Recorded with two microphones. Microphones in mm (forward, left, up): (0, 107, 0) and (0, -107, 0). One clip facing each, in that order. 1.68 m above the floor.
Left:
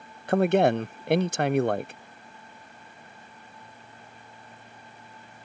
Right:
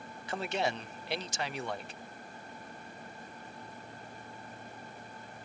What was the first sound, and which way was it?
A man speaking, 65° left (ahead or behind).